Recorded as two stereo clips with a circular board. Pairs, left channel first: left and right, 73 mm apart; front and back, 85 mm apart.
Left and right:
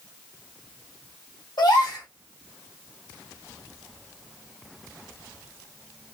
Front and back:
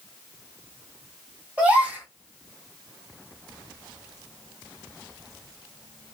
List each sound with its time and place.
1.6 s a gasp: 105° left, 2.5 m